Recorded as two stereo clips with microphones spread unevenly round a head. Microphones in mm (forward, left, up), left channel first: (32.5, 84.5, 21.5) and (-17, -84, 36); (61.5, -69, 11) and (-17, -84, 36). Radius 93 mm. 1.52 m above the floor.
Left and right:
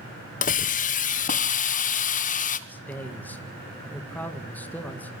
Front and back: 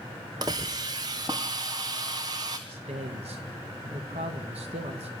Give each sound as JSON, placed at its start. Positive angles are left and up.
{"t": 0.4, "sound": "a hiss", "azimuth_deg": 120, "distance_m": 1.2}
{"t": 2.7, "sound": "a man speaking", "azimuth_deg": 155, "distance_m": 2.0}